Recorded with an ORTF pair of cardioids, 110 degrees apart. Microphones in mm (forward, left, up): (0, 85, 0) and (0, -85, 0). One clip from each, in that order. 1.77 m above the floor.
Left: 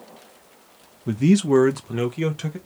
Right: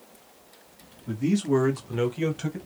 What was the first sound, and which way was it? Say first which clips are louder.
A man speaking: left 6 dB; 50° left.